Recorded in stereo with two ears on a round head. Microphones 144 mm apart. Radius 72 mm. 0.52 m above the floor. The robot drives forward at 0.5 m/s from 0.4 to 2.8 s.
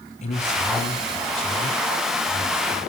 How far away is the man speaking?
About 4 m.